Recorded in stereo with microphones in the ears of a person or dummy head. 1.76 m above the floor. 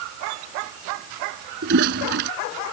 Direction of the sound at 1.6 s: 55° right (ahead or behind).